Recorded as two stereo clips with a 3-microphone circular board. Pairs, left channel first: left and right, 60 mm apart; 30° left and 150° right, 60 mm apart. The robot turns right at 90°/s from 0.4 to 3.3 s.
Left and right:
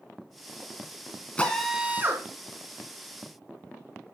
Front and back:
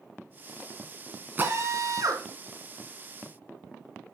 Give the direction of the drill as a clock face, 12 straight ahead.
7 o'clock.